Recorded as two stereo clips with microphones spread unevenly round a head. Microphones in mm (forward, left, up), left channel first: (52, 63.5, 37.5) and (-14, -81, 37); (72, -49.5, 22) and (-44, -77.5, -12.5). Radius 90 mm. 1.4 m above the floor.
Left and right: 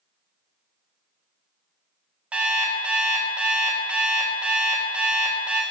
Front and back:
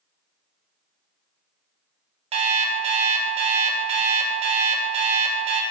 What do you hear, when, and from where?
2.3 s an alarm clock: 165° left, 0.5 m